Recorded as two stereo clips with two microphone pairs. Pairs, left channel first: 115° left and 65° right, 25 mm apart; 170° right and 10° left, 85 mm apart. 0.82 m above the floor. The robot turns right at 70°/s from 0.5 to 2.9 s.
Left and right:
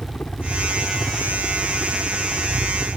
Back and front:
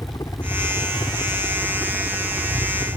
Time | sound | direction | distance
0.0 | a helicopter | 165° left | ?